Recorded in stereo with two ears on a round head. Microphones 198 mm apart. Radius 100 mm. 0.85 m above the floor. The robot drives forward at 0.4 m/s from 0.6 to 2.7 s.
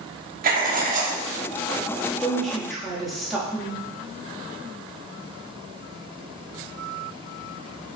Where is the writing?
40° right (ahead or behind), 0.7 m; by 1.2 s 35° right (ahead or behind), 0.8 m.